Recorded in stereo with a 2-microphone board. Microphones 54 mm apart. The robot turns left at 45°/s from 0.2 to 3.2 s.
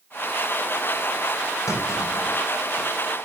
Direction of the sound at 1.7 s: 85° left.